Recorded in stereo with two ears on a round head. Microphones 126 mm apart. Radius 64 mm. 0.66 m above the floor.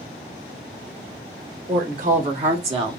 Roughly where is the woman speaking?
Right.